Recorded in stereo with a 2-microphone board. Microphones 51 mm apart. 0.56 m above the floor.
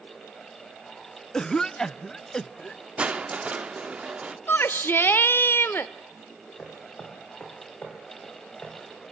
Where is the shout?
45° left (ahead or behind), 1.3 m.